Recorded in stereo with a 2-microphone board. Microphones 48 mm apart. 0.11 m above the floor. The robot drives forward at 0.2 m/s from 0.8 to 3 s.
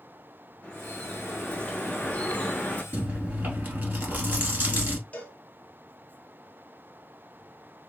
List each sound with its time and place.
0.6 s dripping: 25° left (ahead or behind), 0.8 m; by 2.8 s 30° left (ahead or behind), 0.7 m
2.9 s chewing: 40° right (ahead or behind), 1.3 m
5.1 s a cowbell: 30° left (ahead or behind), 0.9 m